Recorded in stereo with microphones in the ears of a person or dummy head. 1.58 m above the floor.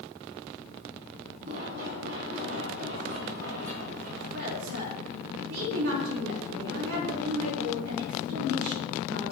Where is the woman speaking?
80° right, 4.5 m.